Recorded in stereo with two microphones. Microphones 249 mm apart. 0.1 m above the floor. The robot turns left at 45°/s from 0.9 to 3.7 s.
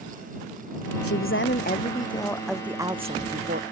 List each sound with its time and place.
1.0 s a woman speaking: 70° left; by 3.6 s 50° right